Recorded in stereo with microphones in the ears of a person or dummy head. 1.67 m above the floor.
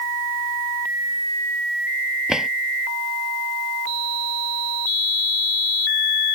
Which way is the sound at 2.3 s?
Centre (ahead or behind).